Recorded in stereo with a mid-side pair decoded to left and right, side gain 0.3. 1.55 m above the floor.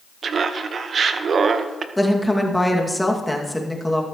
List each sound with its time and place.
0.2 s laughter: 65° right, 1.2 m
2.0 s a woman speaking: 5° left, 2.5 m